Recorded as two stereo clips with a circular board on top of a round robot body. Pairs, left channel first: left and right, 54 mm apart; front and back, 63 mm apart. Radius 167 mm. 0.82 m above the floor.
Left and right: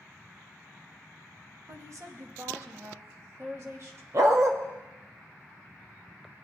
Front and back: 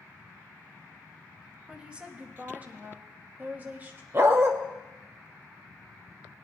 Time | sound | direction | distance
1.7 | a woman speaking | 105° right | 1.5 m
4.1 | a dog barking | 125° right | 0.7 m